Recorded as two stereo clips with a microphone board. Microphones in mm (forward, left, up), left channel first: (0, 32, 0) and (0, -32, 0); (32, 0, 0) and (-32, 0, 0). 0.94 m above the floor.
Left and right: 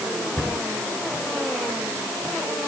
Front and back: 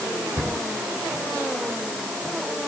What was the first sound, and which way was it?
A cupboard door, 150° left.